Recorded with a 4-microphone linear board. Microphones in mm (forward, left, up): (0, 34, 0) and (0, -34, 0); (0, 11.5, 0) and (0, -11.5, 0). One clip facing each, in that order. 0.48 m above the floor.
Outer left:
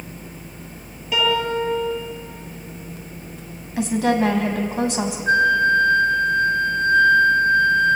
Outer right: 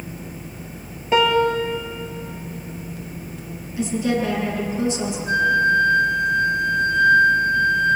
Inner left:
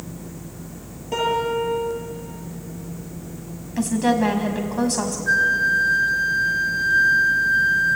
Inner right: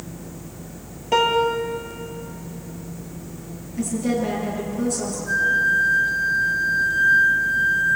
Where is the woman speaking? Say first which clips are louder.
Outer left 3 dB, inner left 4 dB; 70° left (ahead or behind), 4 m.